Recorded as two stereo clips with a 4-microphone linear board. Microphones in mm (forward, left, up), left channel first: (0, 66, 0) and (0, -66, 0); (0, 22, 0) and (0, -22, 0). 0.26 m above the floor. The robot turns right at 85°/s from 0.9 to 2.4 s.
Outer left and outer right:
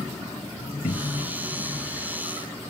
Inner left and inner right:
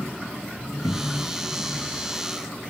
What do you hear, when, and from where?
0.8 s a cupboard door: 110° left, 0.8 m; by 1.3 s 140° left, 0.8 m